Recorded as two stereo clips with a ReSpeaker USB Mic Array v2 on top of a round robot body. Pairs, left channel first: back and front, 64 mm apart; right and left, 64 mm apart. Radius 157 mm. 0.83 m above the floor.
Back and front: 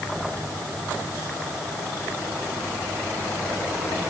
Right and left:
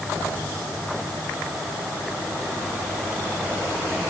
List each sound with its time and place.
Only background noise.